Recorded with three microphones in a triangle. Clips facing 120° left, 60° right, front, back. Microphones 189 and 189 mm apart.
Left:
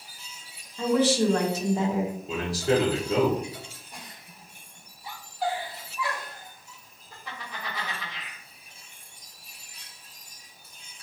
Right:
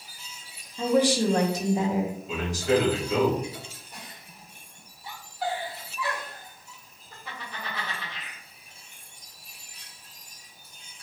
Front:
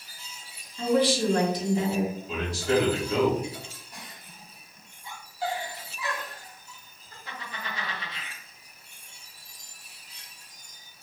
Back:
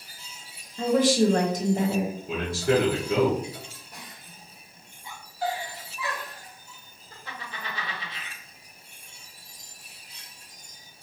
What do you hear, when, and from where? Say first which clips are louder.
0.8 s a woman speaking: even, back 2 dB; 135° right, 0.9 m
2.3 s a man speaking: even, back 4 dB; 170° left, 1.1 m
3.9 s a giggle: even, even; 145° right, 1.9 m